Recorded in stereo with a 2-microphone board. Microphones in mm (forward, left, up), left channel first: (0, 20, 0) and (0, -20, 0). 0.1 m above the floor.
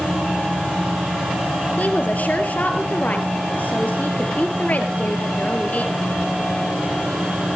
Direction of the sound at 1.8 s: 45° left (ahead or behind).